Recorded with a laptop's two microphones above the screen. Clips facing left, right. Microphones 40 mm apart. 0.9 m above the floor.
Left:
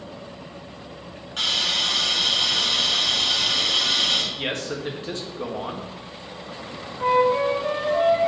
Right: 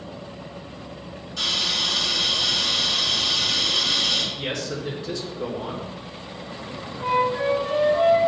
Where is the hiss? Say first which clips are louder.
Left 1 dB; 50° left (ahead or behind), 2.5 m.